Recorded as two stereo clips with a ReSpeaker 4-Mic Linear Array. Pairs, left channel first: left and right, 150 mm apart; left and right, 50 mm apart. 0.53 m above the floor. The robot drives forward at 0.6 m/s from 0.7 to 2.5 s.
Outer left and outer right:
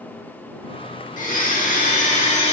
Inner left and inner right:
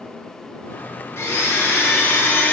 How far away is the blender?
About 1.0 m.